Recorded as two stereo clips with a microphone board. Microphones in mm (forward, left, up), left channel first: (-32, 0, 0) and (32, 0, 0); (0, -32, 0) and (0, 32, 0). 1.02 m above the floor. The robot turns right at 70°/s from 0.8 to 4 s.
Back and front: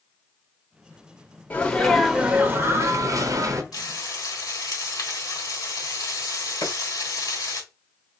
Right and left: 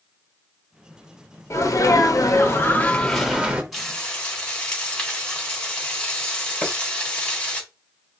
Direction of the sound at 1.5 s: 120° right.